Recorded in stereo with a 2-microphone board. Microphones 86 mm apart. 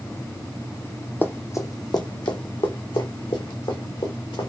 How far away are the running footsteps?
About 0.6 m.